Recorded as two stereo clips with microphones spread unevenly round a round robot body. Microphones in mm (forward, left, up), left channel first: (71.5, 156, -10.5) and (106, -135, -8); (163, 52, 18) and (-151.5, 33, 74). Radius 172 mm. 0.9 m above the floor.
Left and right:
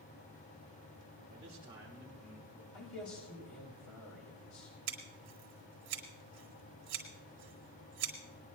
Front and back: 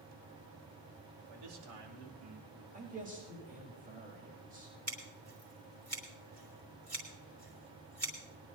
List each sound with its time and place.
1.3 s a man speaking: 155° right, 3 m; by 2.6 s 170° left, 3 m
2.7 s a man speaking: 115° left, 4 m
4.9 s scissors: 90° right, 3 m